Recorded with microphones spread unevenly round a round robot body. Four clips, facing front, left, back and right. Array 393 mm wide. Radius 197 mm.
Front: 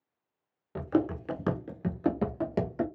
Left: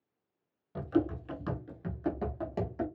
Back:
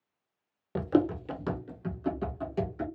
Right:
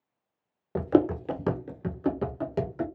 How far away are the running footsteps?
About 0.6 m.